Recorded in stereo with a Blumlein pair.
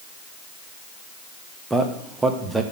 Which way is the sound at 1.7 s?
5° right.